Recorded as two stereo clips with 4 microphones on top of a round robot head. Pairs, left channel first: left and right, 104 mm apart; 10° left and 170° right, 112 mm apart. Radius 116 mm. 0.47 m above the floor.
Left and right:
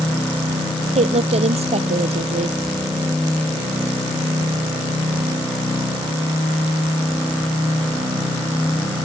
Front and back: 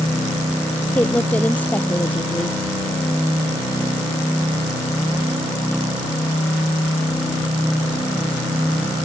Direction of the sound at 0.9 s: 70° right.